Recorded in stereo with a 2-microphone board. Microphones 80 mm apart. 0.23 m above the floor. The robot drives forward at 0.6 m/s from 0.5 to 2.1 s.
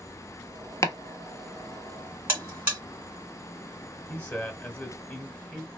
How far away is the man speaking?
About 1.0 m.